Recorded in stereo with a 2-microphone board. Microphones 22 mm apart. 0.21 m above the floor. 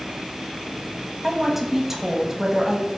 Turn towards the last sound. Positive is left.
turn(degrees=-10)  # may be behind; listen again after turning